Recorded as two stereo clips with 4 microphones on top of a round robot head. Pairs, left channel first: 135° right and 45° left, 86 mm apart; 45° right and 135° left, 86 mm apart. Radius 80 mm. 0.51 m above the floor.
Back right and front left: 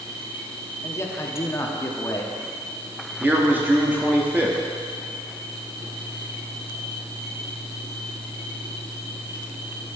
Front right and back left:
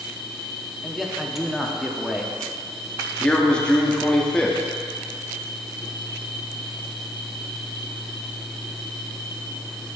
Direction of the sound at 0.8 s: 140° right.